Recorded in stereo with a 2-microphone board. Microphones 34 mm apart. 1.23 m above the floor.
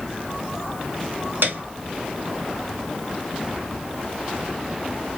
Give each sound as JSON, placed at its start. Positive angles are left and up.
{"t": 1.4, "sound": "a piano", "side_deg": -90, "distance_m": 1.9}